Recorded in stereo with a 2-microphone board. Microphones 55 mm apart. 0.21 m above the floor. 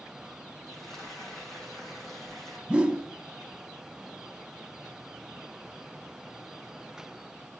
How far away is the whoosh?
About 1.0 m.